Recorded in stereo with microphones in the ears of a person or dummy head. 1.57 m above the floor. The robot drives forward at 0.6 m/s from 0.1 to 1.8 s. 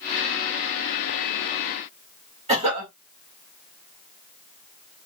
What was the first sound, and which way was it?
A cough, 30° right (ahead or behind).